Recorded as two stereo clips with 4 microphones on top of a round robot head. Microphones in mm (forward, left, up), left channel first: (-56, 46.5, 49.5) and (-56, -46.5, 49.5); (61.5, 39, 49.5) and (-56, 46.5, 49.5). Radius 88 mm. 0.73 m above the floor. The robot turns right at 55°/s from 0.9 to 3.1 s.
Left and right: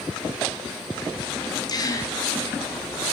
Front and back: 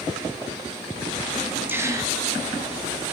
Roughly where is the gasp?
Left.